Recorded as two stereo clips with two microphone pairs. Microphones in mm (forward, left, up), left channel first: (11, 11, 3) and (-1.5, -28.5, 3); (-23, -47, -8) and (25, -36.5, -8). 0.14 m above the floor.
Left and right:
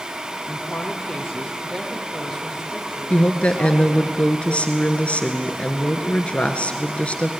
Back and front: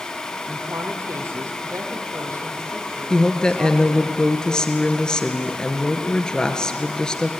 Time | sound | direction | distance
0.5 | a woman speaking | straight ahead | 3.5 m
3.1 | a woman speaking | 125° left | 2 m